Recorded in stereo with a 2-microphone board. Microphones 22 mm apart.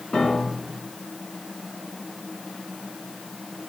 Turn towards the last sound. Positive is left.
turn(degrees=65)  # may be behind; listen again after turning